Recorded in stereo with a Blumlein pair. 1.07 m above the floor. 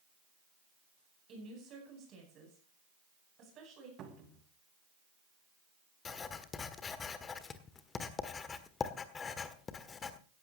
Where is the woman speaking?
30° right, 10 m.